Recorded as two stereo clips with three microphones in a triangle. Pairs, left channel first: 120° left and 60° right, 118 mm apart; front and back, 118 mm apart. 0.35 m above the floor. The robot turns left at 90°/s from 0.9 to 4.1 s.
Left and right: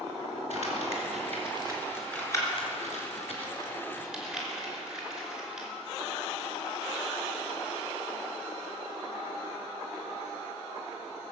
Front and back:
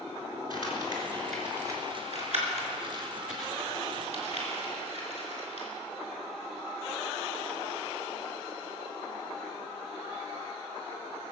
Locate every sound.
0.5 s crumpling: 50° right, 3.5 m; by 5.7 s 25° left, 3.5 m